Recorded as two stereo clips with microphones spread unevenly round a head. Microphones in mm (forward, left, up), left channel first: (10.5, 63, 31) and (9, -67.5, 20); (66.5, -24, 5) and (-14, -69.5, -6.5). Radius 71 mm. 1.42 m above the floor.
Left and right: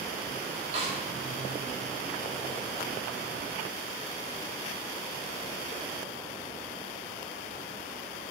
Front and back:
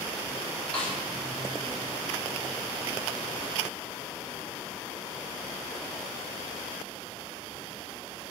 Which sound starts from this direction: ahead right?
A snare drum, at 0.7 s.